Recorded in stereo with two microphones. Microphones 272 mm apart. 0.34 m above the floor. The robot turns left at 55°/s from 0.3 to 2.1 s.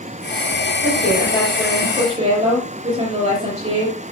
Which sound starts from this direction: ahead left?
A woman speaking, at 0.8 s.